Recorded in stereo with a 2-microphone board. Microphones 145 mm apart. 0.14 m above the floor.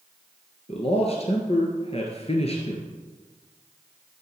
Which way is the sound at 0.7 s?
45° left (ahead or behind).